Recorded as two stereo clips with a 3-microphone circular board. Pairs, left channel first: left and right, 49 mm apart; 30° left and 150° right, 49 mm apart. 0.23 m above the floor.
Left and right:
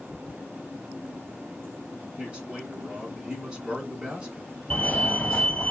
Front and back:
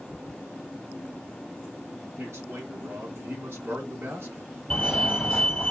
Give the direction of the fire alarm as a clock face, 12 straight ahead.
9 o'clock.